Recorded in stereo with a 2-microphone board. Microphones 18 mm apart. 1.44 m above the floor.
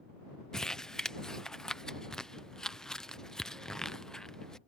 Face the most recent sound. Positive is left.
turn(degrees=30)  # may be behind; listen again after turning